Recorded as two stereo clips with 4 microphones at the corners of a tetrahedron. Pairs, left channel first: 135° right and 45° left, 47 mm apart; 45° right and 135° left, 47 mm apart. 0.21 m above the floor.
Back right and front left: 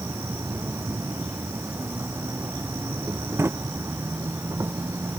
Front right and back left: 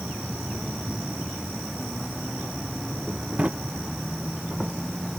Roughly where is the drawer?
Left.